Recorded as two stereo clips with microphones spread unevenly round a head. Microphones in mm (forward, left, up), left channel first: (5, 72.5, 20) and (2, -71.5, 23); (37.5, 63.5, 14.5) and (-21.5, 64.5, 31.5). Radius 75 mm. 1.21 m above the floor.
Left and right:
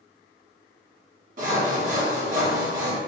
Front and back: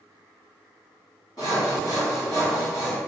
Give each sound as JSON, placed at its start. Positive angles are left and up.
{"t": 1.4, "sound": "sawing", "azimuth_deg": -60, "distance_m": 1.2}